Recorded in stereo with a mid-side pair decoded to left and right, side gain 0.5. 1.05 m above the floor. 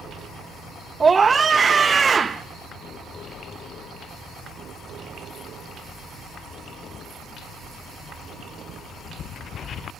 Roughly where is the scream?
Ahead right.